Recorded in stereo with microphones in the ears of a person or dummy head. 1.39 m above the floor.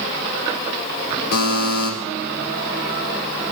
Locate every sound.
1.3 s a buzzer: 65° left (ahead or behind), 5.5 m